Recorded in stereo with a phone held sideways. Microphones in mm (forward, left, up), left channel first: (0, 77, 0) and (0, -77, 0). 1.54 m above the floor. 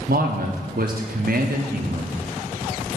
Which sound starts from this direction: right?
A man speaking, at 0.1 s.